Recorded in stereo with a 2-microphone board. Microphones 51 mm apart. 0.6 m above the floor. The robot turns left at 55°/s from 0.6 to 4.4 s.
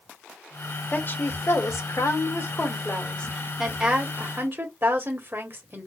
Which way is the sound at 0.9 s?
145° left.